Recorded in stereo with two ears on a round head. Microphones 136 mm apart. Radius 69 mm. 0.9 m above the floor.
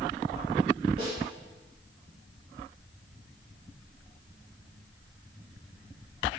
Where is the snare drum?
35° right (ahead or behind), 5.5 m.